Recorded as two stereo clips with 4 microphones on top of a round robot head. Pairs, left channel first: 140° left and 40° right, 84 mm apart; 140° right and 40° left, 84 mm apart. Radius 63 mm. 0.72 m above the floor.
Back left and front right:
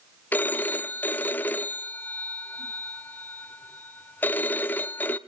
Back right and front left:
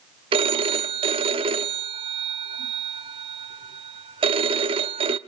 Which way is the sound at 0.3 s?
65° left.